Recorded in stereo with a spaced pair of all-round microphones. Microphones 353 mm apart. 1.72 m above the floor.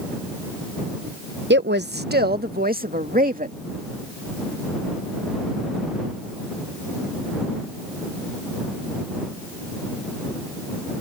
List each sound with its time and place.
1.5 s a woman speaking: 30° right (ahead or behind); by 3.6 s 25° right (ahead or behind)